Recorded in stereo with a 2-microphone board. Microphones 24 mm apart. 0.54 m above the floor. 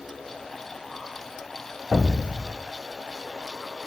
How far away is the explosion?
About 0.6 m.